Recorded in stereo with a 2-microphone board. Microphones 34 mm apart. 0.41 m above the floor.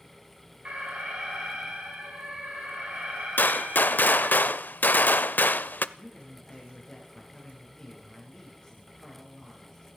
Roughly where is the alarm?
Right.